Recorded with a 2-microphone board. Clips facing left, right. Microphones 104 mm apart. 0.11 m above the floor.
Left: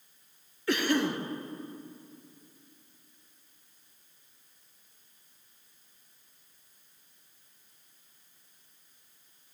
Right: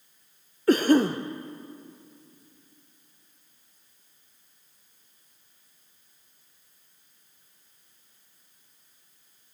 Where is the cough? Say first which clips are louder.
Right 8 dB; 40° right (ahead or behind), 1.6 m.